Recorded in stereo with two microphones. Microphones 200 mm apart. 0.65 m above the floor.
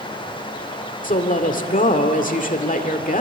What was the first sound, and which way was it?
A woman speaking, 45° left (ahead or behind).